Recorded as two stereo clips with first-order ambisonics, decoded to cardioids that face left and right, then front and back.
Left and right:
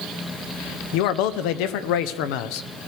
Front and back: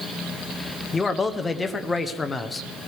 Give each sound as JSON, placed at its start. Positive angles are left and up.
{"t": 0.9, "sound": "a man speaking", "azimuth_deg": 75, "distance_m": 0.8}